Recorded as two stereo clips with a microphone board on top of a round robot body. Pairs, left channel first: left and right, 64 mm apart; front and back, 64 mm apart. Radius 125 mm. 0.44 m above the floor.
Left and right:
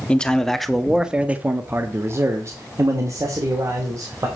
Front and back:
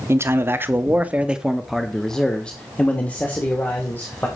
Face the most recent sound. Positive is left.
turn(degrees=-60)